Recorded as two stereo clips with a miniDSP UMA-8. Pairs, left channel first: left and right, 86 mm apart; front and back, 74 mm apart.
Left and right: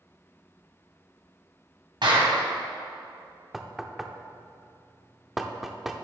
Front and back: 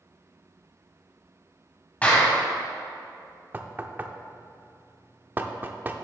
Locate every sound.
2.0 s a clap: 70° right, 2.5 m
3.5 s knocking: 175° right, 0.5 m